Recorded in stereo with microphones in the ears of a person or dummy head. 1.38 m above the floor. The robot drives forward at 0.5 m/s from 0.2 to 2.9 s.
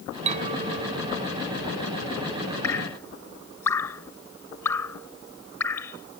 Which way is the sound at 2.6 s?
20° left (ahead or behind).